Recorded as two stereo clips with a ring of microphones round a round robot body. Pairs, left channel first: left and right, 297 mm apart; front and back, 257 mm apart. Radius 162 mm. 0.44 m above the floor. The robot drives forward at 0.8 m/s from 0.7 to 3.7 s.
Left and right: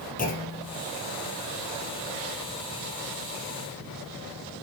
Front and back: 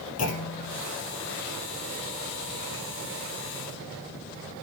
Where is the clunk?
25° left, 3.5 m.